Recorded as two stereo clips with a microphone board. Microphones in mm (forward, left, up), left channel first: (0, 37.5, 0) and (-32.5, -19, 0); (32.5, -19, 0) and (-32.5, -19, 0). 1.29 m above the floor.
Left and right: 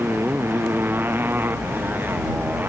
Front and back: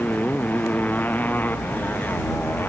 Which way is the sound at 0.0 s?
65° right.